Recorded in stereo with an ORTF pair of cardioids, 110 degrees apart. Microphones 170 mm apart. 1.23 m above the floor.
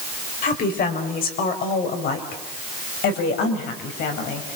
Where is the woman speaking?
55° left, 4.5 m; by 4.6 s 75° left, 6 m.